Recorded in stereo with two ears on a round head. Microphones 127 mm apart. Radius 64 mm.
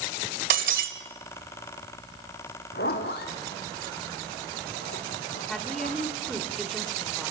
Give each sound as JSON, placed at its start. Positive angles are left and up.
{"t": 0.5, "sound": "breaking glass", "side_deg": -65, "distance_m": 1.4}
{"t": 2.7, "sound": "a zipper", "side_deg": 80, "distance_m": 3.5}
{"t": 5.5, "sound": "a woman speaking", "side_deg": 0, "distance_m": 1.7}